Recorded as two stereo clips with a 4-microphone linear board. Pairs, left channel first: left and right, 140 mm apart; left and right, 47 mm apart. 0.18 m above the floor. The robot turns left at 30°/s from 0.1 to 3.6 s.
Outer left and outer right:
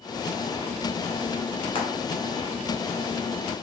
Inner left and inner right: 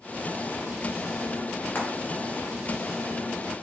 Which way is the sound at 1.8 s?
40° left (ahead or behind).